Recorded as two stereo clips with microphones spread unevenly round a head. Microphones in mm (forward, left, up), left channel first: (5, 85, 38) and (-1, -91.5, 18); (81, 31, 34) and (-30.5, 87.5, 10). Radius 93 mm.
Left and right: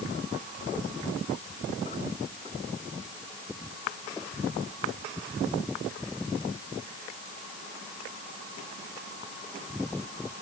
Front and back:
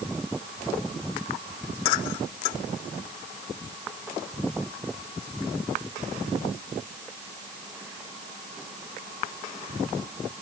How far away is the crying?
No crying in this recording.